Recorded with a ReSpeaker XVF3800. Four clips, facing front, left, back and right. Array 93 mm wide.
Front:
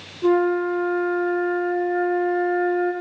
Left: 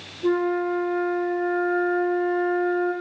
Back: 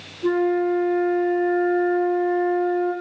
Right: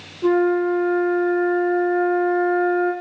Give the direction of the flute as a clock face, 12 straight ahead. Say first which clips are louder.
Right 5 dB, front 1 dB; 2 o'clock.